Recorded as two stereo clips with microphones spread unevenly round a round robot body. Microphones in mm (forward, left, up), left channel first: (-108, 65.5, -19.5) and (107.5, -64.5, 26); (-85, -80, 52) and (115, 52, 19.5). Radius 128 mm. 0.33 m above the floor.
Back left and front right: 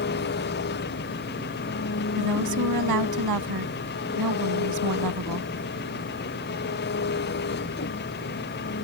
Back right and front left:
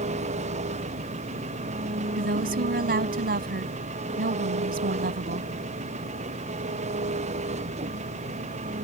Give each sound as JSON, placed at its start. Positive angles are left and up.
{"t": 0.0, "sound": "an engine running", "azimuth_deg": 100}
{"t": 2.2, "sound": "a woman speaking", "azimuth_deg": -15}